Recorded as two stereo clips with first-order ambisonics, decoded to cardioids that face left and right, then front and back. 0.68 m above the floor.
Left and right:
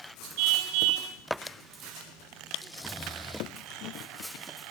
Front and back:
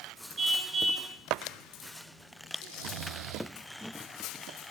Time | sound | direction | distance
0.4 | a car horn | 105° right | 4 m
2.6 | snoring | 175° left | 1.0 m